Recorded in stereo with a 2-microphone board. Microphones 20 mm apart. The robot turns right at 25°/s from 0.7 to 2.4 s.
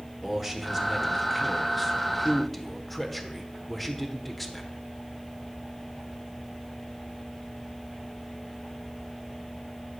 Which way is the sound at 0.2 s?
15° right (ahead or behind).